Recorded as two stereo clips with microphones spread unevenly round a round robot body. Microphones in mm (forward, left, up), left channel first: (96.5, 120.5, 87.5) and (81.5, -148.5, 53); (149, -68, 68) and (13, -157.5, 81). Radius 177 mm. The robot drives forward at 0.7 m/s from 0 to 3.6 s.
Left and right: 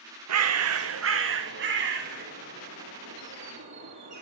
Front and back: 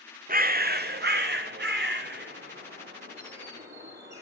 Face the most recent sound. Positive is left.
turn(degrees=-160)